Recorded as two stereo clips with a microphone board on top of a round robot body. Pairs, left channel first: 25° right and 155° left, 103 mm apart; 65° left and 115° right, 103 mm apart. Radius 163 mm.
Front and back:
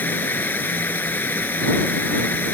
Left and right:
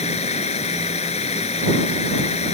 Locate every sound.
0.0 s running water: 50° left